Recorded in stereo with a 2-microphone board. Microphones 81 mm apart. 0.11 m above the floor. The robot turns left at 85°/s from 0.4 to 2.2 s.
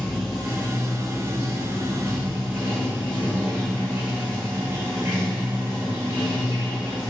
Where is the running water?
Straight ahead, 1.3 m; by 7.1 s 150° right, 1.3 m.